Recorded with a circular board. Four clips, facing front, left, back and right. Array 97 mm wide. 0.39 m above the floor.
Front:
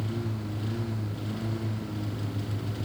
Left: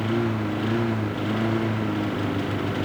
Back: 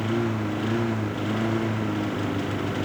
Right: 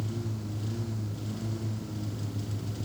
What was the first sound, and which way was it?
A lawn mower, 125° left.